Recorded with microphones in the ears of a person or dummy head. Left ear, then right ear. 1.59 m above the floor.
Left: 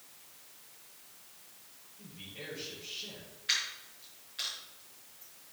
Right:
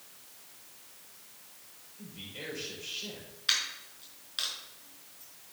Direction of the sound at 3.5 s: 45° right (ahead or behind).